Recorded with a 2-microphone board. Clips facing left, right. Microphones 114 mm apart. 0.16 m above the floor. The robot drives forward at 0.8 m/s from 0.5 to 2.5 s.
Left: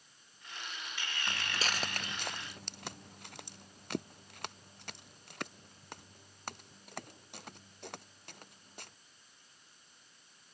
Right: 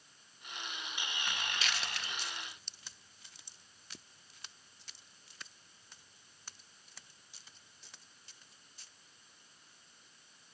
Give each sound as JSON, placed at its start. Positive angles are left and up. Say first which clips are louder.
{"t": 1.3, "sound": "footsteps", "louder": "left 3 dB", "side_deg": 25}